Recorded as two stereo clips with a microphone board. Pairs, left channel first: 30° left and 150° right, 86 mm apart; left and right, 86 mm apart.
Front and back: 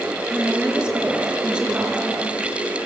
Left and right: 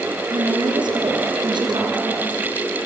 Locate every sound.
0.3 s a woman speaking: 70° right, 3.5 m